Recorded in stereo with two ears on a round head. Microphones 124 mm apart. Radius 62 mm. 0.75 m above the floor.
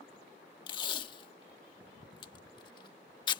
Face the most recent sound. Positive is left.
turn(degrees=35)  # may be behind; listen again after turning